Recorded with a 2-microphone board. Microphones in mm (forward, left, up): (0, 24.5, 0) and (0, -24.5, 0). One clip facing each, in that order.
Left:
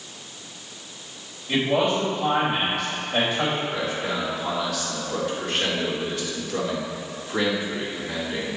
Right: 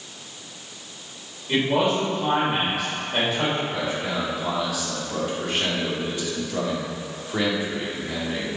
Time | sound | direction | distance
1.5 | a man speaking | 5° right (ahead or behind) | 3 m
3.7 | a man speaking | 10° right (ahead or behind) | 2.5 m